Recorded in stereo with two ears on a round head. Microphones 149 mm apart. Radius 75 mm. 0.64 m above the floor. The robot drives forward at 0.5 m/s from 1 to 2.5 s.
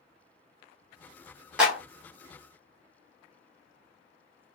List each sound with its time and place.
1.6 s a clap: 5° right (ahead or behind), 1.1 m